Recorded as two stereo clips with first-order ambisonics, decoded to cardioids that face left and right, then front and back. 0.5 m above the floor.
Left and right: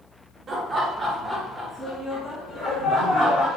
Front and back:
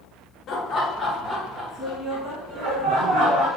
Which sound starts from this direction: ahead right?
Laughter, at 0.5 s.